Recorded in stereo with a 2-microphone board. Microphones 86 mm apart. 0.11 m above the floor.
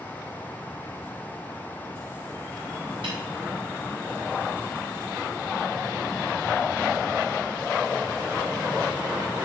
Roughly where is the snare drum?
Right.